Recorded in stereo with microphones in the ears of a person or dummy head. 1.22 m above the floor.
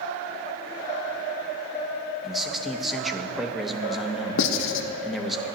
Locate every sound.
2.2 s a man speaking: centre (ahead or behind), 0.8 m
4.4 s writing: 65° left (ahead or behind), 0.6 m